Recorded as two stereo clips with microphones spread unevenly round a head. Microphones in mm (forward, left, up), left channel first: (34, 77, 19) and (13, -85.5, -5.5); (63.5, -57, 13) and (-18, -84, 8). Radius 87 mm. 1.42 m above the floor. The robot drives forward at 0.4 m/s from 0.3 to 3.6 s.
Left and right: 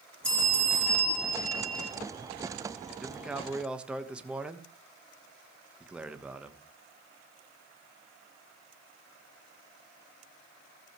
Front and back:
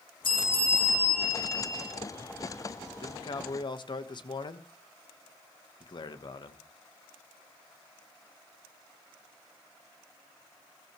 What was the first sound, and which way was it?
A bell, straight ahead.